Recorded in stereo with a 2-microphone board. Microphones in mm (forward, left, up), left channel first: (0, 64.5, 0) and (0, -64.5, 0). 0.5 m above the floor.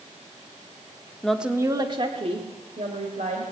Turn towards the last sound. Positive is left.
turn(degrees=-70)  # may be behind; listen again after turning